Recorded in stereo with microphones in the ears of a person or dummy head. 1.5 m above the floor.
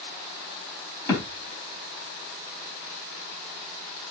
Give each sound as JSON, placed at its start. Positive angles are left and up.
{"t": 1.1, "sound": "a thud", "side_deg": 15, "distance_m": 4.0}